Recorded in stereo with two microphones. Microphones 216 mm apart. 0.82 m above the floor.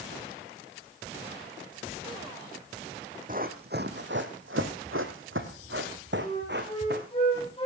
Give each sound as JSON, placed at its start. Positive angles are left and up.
{"t": 3.3, "sound": "running footsteps", "side_deg": -40, "distance_m": 2.5}
{"t": 6.2, "sound": "a flute", "side_deg": 25, "distance_m": 6.0}